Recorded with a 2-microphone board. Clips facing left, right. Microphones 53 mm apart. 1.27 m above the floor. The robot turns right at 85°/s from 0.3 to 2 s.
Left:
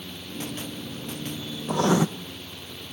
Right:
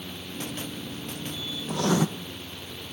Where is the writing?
35° left (ahead or behind), 0.5 m; by 2.1 s 15° left (ahead or behind), 0.5 m.